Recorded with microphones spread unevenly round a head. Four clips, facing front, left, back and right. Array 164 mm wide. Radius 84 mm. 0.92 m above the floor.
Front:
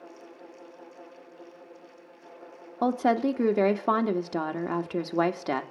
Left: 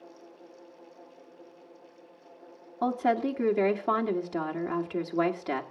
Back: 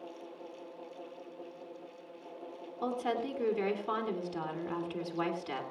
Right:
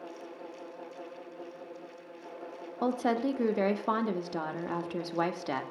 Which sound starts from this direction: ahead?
A woman speaking, at 2.8 s.